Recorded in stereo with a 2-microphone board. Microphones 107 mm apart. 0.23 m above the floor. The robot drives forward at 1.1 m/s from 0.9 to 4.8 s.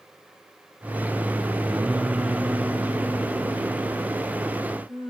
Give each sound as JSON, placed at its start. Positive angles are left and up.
{"t": 1.7, "sound": "singing", "side_deg": -5, "distance_m": 0.6}